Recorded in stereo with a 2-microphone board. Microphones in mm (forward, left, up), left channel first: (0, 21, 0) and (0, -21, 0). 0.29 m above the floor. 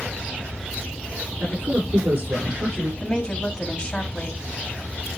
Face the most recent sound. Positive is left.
turn(degrees=20)  # may be behind; listen again after turning